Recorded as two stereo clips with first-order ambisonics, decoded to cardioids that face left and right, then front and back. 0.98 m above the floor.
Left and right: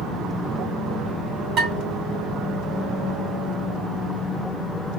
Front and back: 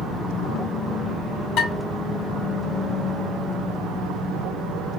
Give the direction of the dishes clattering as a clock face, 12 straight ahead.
1 o'clock.